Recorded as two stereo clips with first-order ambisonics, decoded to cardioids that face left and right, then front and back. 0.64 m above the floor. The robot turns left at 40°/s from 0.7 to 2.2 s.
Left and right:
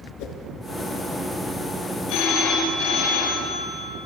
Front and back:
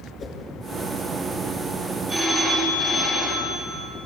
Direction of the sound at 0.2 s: 60° left.